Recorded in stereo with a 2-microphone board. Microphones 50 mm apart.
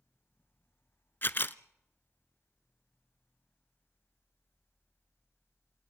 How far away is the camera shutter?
About 0.6 m.